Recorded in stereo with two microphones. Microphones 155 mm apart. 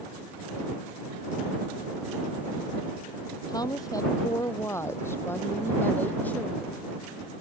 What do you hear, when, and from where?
3.5 s a woman speaking: 25° left (ahead or behind); by 6.9 s 10° left (ahead or behind)